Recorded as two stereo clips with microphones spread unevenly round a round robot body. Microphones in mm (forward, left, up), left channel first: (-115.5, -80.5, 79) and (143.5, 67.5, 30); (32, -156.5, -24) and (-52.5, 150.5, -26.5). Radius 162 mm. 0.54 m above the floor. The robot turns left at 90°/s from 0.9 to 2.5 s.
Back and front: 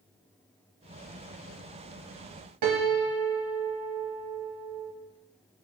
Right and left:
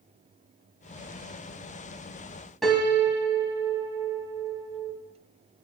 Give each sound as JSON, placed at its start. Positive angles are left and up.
{"t": 2.6, "sound": "a piano", "azimuth_deg": 15, "distance_m": 2.0}